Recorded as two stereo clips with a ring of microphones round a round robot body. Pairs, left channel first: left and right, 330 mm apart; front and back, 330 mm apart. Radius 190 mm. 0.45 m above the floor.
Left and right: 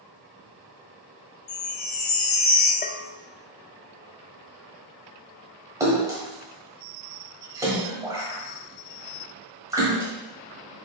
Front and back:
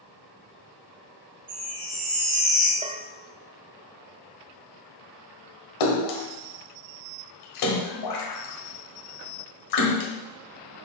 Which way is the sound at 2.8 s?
125° left.